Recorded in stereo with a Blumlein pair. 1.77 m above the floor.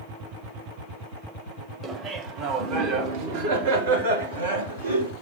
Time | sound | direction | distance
1.8 | laughter | 20° right | 1.7 m